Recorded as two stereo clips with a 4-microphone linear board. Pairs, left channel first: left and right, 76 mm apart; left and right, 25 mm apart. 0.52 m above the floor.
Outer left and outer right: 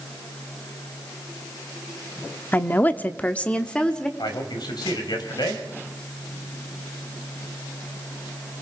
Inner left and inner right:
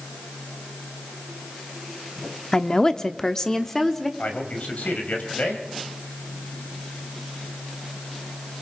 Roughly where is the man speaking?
Left.